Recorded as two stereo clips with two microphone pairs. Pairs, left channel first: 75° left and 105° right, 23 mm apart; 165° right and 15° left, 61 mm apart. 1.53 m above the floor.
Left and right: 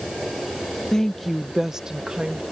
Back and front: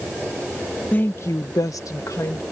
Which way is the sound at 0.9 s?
135° left.